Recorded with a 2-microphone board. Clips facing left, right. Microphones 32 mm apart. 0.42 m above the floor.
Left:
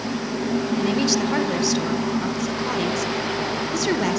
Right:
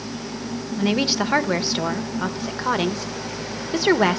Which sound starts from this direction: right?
A woman speaking, at 0.8 s.